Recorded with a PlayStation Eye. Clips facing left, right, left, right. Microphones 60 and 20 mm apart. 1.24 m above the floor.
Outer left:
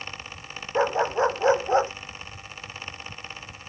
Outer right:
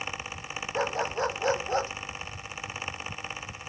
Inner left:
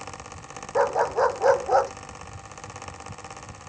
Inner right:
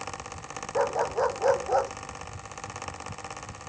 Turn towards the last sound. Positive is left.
turn(degrees=25)  # may be behind; listen again after turning